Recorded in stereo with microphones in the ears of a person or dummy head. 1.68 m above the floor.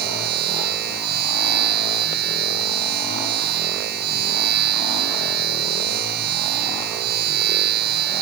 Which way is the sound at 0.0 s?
55° right (ahead or behind).